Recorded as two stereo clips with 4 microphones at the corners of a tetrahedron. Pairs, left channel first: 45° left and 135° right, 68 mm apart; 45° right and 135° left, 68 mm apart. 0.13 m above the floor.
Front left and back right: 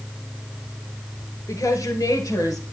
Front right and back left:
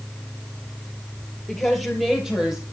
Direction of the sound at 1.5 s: 40° left.